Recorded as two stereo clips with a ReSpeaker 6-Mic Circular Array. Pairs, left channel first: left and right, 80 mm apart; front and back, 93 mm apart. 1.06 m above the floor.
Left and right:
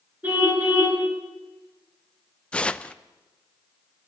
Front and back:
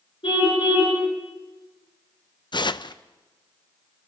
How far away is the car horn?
About 8 m.